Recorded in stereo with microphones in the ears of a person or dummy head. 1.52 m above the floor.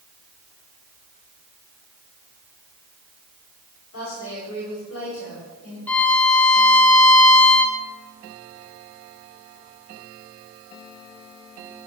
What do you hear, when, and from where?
3.9 s a woman speaking: 80° left, 5 m
5.9 s a violin: 10° left (ahead or behind), 0.7 m